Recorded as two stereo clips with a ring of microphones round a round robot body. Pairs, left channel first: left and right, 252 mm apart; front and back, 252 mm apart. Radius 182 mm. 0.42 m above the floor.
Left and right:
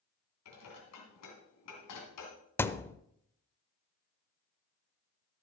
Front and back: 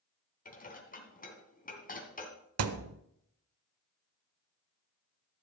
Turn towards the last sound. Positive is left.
turn(degrees=170)